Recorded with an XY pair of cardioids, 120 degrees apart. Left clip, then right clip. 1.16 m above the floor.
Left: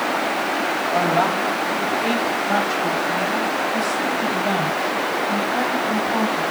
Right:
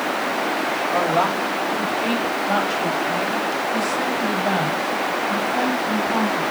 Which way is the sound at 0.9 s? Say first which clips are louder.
Left 1 dB; 25° right.